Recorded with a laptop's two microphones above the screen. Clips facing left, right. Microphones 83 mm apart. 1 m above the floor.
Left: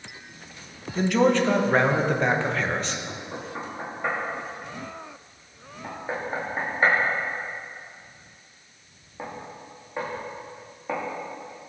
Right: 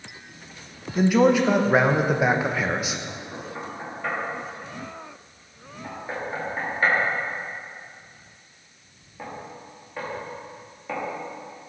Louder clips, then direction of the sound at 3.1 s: Even; 20° left (ahead or behind).